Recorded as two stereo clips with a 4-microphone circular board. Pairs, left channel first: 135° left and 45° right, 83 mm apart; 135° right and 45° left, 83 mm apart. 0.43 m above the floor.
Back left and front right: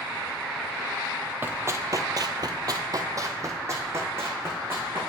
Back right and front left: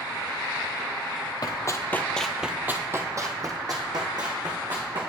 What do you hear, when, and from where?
1.4 s running footsteps: 105° right, 0.8 m; by 5.0 s 20° left, 2 m